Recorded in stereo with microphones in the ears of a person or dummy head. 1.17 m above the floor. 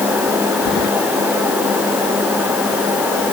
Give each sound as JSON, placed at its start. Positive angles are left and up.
{"t": 0.7, "sound": "keys jangling", "side_deg": 50}